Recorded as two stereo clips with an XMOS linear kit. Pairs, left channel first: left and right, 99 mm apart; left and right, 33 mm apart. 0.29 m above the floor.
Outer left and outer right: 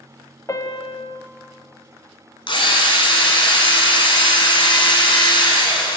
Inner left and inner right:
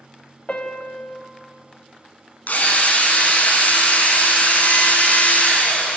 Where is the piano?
35° left (ahead or behind), 0.8 m.